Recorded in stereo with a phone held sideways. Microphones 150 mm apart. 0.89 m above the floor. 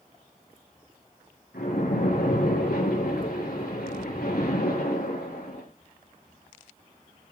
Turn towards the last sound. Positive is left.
turn(degrees=85)